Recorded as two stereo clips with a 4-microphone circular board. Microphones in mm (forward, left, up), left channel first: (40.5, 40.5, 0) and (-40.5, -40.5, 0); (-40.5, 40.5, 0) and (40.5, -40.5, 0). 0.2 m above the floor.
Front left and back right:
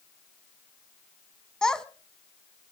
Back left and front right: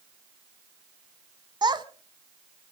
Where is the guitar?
I don't hear a guitar.